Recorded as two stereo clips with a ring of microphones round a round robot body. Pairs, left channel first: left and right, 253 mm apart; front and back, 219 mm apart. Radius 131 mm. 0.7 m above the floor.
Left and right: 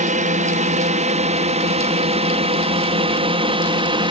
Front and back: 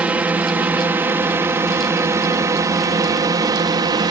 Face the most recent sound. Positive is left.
turn(degrees=-135)